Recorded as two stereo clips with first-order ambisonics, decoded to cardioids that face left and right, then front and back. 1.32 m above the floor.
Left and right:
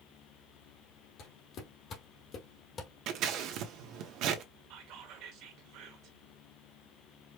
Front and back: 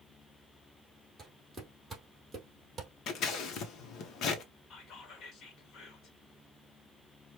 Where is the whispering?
55° right, 1.5 m.